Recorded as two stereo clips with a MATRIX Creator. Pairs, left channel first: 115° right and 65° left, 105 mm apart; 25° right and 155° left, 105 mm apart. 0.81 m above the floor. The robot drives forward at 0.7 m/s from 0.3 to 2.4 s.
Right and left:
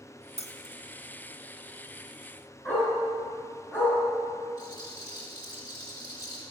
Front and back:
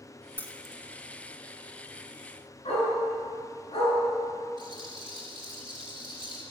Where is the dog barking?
45° right, 4.5 m.